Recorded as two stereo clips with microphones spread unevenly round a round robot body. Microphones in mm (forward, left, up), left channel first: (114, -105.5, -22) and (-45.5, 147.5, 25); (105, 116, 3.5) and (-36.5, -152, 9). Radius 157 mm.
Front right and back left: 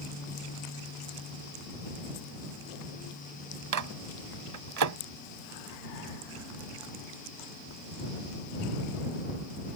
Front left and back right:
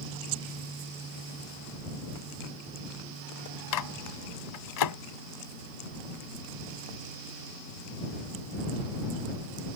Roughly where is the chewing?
I don't hear chewing.